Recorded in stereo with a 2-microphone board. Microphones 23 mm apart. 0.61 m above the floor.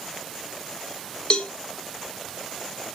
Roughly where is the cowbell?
Left.